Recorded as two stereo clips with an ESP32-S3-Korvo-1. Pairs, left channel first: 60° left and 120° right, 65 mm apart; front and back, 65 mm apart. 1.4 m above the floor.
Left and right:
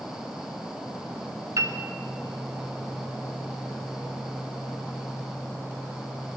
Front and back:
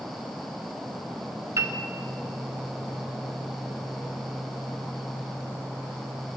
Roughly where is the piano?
Behind right.